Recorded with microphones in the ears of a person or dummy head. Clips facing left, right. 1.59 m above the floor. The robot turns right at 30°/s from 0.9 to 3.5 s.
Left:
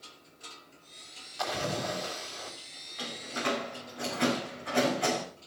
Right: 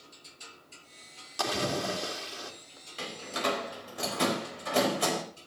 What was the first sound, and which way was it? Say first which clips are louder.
A splash: right 2 dB; 75° right.